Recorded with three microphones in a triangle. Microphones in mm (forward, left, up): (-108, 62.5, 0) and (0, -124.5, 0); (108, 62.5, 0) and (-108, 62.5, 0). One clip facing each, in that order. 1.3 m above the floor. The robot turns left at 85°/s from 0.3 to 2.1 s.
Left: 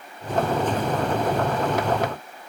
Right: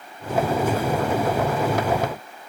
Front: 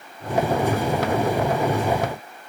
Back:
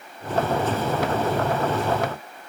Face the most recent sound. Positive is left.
No sound to turn to.